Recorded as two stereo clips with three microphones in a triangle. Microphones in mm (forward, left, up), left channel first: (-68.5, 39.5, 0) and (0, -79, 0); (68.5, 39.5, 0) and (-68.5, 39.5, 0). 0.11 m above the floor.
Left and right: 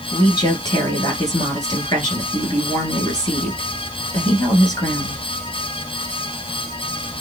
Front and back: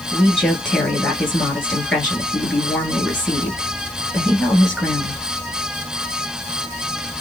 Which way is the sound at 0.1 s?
85° left.